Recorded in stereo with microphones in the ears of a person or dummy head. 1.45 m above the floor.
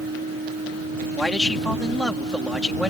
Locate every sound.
0.0 s a machine running: 35° right (ahead or behind)
1.1 s a man speaking: centre (ahead or behind)